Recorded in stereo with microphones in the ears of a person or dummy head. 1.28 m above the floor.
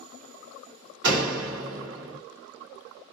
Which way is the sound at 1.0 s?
70° right (ahead or behind).